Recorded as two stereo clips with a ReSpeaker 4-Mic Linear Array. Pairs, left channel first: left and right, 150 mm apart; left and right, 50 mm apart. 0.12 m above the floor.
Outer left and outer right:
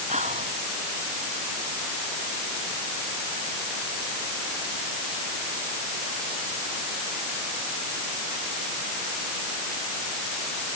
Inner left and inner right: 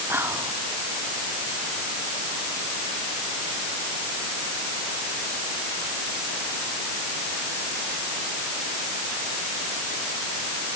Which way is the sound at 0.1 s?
50° right (ahead or behind).